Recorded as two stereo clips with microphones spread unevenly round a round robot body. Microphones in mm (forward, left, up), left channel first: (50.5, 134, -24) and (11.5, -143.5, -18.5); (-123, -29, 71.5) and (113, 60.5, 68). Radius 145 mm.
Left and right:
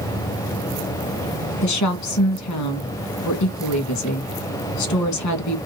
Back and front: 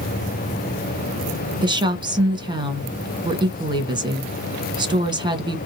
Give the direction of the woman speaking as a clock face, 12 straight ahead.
9 o'clock.